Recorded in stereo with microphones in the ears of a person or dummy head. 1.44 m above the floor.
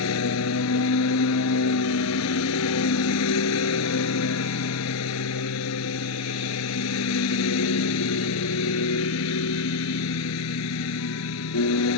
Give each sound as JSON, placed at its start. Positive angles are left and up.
{"t": 0.0, "sound": "a lawn mower", "side_deg": 80}